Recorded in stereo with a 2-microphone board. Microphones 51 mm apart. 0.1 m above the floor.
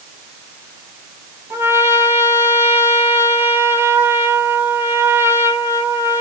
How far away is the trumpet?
About 3 m.